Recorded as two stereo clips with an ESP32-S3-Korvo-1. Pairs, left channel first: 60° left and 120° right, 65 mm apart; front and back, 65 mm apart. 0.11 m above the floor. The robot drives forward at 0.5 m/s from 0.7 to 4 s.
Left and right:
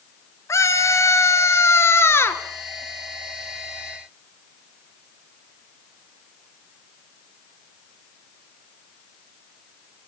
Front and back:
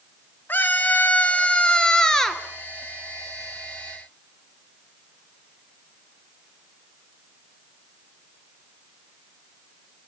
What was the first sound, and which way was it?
A scream, 50° left.